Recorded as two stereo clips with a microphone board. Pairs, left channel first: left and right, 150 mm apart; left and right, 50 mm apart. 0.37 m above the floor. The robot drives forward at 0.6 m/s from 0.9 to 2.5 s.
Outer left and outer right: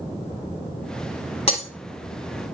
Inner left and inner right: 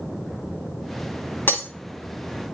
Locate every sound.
1.5 s breaking glass: 45° left (ahead or behind), 1.4 m; by 1.7 s 50° left (ahead or behind), 1.3 m